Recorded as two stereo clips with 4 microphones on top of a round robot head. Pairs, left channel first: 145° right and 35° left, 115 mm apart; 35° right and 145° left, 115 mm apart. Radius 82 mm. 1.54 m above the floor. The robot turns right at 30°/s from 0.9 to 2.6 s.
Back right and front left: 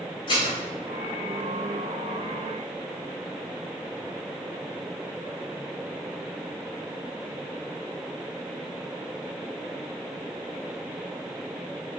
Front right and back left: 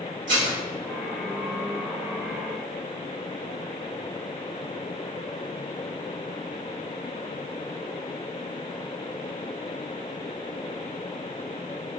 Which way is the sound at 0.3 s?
165° left.